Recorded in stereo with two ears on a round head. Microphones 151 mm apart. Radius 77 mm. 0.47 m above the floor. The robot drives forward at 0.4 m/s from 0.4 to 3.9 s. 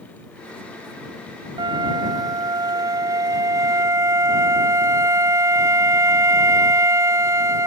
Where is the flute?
30° right (ahead or behind); by 7.7 s 20° right (ahead or behind).